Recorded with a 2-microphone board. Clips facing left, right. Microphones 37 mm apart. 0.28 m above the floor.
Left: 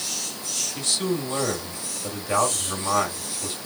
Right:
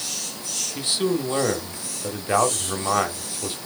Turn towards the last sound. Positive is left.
turn(degrees=-20)  # may be behind; listen again after turning